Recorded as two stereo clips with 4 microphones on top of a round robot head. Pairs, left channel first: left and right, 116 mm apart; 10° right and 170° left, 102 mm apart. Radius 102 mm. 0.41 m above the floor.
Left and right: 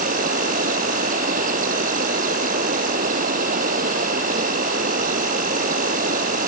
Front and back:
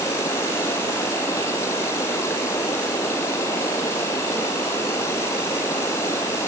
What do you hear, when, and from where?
0.0 s an insect: 80° right